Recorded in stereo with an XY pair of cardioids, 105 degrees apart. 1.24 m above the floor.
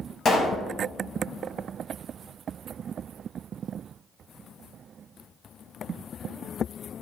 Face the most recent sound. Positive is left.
turn(degrees=50)